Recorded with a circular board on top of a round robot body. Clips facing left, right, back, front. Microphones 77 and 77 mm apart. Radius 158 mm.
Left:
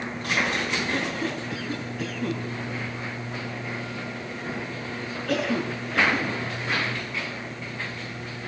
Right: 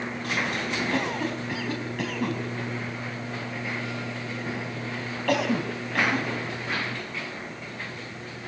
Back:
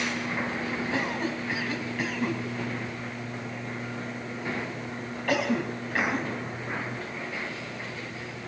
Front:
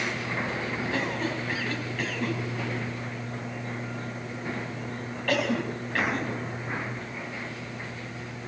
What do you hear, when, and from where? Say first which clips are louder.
0.9 s a cough: right 1 dB, front 1 dB; 95° right, 4.5 m